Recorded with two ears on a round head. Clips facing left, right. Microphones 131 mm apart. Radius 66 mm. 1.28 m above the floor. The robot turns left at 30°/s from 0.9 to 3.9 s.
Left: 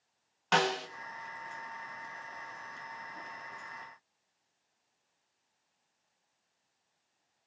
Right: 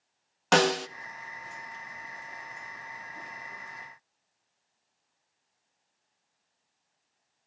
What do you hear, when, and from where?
0.5 s a snare drum: 60° right (ahead or behind), 0.9 m